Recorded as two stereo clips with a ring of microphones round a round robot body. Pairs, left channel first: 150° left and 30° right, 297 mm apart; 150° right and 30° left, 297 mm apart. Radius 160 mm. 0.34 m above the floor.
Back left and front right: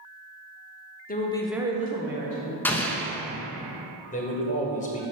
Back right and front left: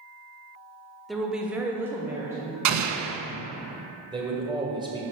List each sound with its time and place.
1.1 s a woman speaking: 120° left, 1.0 m; by 2.5 s 50° right, 1.5 m
2.6 s an explosion: 65° left, 0.8 m
4.1 s a man speaking: 100° left, 1.8 m